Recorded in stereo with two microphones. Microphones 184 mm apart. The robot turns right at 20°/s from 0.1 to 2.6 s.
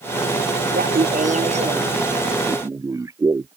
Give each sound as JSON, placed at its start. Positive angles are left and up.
{"t": 0.7, "sound": "laughter", "side_deg": -55}